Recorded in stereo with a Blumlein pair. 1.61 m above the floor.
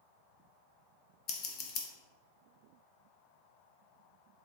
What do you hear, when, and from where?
1.3 s scissors: 30° left, 0.6 m